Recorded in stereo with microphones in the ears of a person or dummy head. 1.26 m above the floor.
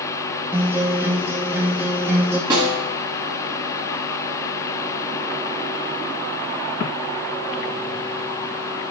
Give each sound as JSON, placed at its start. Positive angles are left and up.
{"t": 0.5, "sound": "a guitar", "side_deg": -15, "distance_m": 0.6}
{"t": 2.5, "sound": "a snare drum", "side_deg": -20, "distance_m": 1.6}